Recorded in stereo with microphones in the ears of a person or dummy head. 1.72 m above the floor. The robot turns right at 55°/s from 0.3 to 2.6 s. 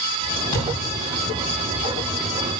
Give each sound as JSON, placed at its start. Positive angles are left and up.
{"t": 0.5, "sound": "a thud", "side_deg": 40, "distance_m": 4.0}